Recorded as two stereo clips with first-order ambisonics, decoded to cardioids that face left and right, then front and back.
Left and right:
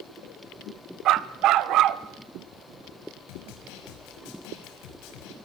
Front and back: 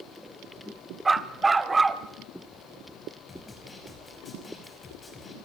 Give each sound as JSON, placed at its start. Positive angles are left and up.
{"t": 1.1, "sound": "a dog barking", "azimuth_deg": -105, "distance_m": 0.8}
{"t": 3.3, "sound": "a snare drum", "azimuth_deg": 75, "distance_m": 5.5}